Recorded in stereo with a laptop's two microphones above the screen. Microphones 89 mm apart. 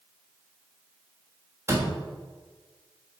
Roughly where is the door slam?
Right.